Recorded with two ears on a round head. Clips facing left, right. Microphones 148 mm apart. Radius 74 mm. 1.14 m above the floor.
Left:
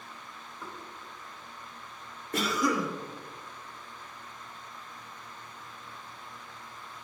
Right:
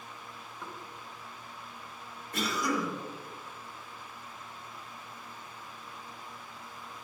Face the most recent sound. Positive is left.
turn(degrees=60)  # may be behind; listen again after turning